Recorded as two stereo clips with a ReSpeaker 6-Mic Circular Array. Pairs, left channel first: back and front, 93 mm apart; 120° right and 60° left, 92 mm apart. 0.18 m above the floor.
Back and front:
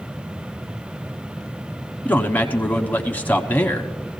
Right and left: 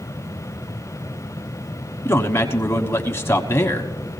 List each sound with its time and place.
2.0 s a man speaking: 135° right, 1.1 m